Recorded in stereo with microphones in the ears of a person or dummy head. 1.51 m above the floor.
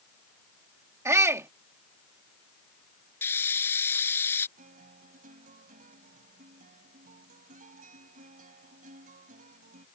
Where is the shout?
10° right (ahead or behind).